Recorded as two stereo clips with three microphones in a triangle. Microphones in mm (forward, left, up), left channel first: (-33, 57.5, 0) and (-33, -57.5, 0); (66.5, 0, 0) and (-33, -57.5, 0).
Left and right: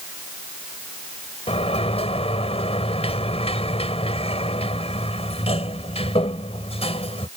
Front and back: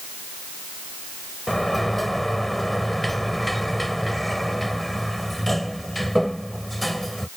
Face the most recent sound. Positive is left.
turn(degrees=120)